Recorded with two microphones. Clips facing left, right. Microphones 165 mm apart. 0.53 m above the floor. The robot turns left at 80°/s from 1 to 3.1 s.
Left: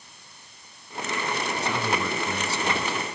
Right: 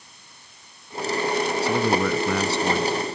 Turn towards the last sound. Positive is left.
turn(degrees=-155)